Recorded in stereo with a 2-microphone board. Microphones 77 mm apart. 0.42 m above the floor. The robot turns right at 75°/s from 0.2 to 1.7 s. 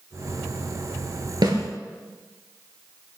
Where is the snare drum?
70° right (ahead or behind), 3.5 m; by 1.6 s 55° right (ahead or behind), 3.5 m.